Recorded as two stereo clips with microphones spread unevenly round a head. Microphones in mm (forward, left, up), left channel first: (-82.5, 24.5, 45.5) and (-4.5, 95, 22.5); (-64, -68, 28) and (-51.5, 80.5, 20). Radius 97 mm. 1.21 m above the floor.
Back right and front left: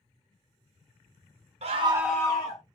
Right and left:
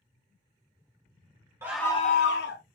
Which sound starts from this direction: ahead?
A scream, at 1.6 s.